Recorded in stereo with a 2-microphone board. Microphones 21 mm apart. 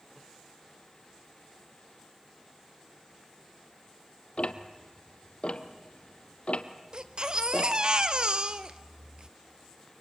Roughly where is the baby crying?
Right.